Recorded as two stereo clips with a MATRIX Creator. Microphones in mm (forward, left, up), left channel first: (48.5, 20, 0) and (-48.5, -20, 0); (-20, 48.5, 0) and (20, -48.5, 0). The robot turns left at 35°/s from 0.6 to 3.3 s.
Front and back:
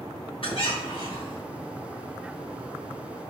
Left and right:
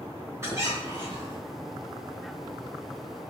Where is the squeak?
5° right, 3 m; by 1.4 s 35° right, 3 m.